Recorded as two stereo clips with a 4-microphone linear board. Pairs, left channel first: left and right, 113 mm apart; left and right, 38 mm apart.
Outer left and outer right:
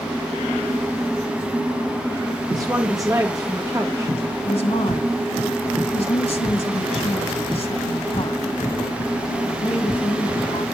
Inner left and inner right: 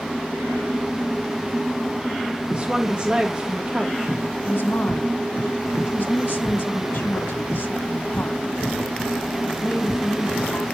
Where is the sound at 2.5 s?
30° right (ahead or behind), 1.1 m.